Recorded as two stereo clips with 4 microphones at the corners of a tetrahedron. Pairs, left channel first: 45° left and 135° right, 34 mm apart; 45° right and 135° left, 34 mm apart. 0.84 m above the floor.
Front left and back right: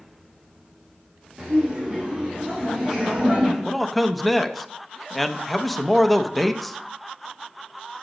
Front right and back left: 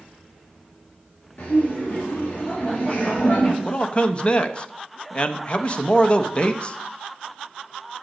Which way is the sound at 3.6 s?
40° right.